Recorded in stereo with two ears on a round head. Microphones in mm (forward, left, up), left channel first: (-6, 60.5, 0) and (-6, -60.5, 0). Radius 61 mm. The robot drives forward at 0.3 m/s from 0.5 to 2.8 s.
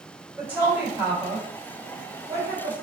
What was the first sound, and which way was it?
A woman speaking, 15° right (ahead or behind).